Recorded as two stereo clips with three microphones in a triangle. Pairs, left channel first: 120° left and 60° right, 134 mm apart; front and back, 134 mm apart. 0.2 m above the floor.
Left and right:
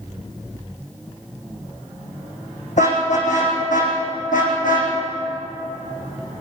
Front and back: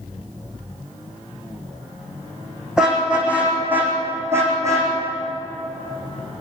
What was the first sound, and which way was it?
A car horn, 95° left.